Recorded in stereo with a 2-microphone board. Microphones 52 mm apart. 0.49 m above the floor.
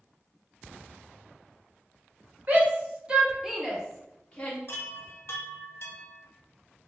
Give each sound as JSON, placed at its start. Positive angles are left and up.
{"t": 2.5, "sound": "a shout", "side_deg": -35, "distance_m": 1.1}
{"t": 4.7, "sound": "a chime", "side_deg": 65, "distance_m": 0.6}